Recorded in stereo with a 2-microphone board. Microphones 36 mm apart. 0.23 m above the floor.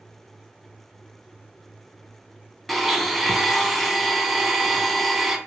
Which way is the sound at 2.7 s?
Centre (ahead or behind).